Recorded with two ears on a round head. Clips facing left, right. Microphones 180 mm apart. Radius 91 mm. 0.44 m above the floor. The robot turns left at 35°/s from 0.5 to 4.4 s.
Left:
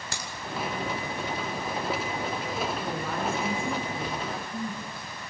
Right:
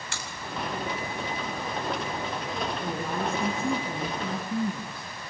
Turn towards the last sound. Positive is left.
turn(degrees=-65)